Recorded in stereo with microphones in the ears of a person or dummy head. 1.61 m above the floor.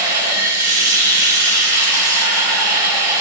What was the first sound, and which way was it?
Running water, 15° right (ahead or behind).